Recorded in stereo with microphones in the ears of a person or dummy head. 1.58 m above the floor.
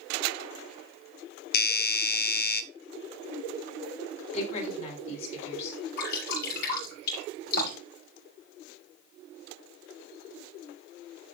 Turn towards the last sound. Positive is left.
turn(degrees=55)  # may be behind; listen again after turning